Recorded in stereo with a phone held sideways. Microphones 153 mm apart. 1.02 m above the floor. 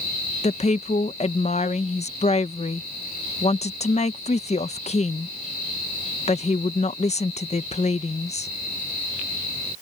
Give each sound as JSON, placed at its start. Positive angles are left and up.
{"t": 0.4, "sound": "a woman speaking", "side_deg": 45}